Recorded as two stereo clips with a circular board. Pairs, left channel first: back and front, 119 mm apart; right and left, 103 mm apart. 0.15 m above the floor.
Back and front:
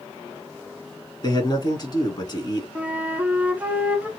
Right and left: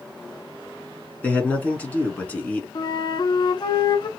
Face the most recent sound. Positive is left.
turn(degrees=-75)